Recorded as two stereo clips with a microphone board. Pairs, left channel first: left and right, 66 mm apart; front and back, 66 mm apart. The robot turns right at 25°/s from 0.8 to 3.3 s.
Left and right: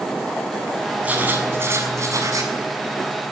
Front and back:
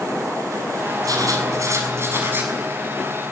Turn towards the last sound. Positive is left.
turn(degrees=-100)